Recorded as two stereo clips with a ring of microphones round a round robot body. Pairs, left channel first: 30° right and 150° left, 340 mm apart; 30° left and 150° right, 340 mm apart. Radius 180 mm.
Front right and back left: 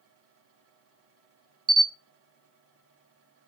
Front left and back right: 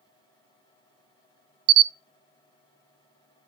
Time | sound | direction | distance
1.7 | a camera shutter | 135° right | 0.5 m